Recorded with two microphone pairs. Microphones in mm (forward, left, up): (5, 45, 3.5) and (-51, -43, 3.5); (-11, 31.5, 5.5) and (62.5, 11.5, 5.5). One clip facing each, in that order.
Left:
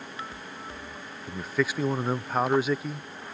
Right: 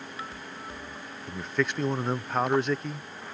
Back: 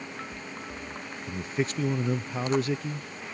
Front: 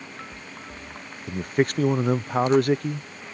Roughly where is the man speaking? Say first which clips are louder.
Left 1 dB, front 7 dB; ahead right.